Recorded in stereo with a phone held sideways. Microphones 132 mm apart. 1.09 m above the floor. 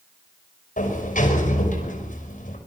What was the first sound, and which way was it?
A sliding door, 85° left.